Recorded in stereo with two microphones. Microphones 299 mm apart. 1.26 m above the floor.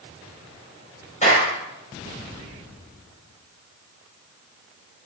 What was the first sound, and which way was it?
A clap, 25° left (ahead or behind).